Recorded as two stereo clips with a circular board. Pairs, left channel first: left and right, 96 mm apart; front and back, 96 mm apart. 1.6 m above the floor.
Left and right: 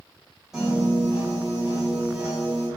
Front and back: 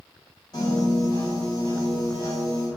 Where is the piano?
5° right, 1.8 m.